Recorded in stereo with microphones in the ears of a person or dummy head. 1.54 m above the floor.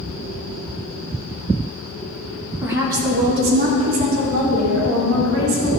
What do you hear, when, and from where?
2.6 s a woman speaking: 10° right (ahead or behind), 1.6 m; by 5.7 s 55° right (ahead or behind), 3.5 m